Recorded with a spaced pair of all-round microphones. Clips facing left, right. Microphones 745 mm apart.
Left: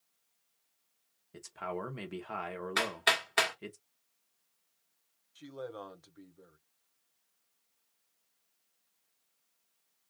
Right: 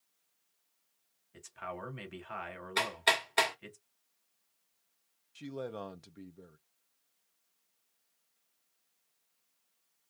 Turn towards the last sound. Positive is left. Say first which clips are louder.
# right 3 dB
turn(degrees=-60)  # may be behind; listen again after turning